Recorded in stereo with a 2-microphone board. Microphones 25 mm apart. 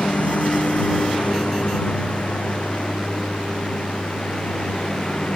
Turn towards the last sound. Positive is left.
turn(degrees=35)  # may be behind; listen again after turning